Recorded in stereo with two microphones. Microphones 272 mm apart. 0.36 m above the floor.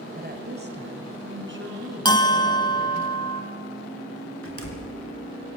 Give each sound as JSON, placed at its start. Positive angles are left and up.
{"t": 0.1, "sound": "a woman speaking", "side_deg": -30, "distance_m": 1.6}
{"t": 2.0, "sound": "a bell", "side_deg": 15, "distance_m": 1.5}
{"t": 4.4, "sound": "a door slam", "side_deg": 55, "distance_m": 3.0}